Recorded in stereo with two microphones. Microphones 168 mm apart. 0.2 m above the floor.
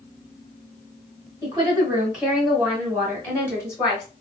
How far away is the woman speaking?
About 1.7 m.